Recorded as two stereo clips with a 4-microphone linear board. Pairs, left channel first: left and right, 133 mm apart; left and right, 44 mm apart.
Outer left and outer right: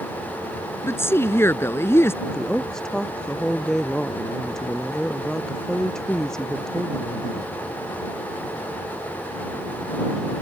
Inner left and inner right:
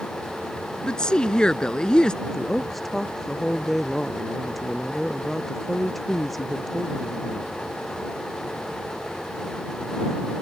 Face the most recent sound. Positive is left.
turn(degrees=5)  # may be behind; listen again after turning